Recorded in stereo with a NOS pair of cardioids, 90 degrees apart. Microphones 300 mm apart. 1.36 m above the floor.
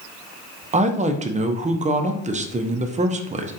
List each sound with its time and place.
0.7 s a woman speaking: 25° right, 0.5 m